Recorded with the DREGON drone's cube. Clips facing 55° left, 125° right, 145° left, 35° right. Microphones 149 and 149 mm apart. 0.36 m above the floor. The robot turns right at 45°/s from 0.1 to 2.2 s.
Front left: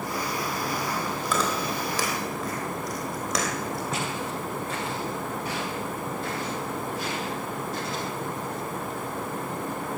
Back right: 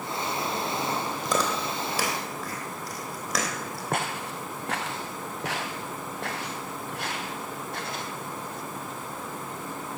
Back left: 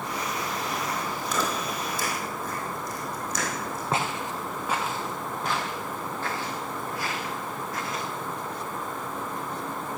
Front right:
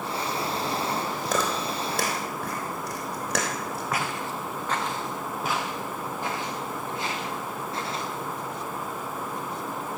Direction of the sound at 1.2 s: 80° right.